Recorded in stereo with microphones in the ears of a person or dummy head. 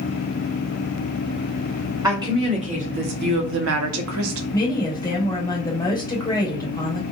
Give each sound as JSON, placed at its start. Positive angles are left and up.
{"t": 2.0, "sound": "a woman speaking", "side_deg": -20, "distance_m": 1.1}
{"t": 4.5, "sound": "a woman speaking", "side_deg": 20, "distance_m": 0.9}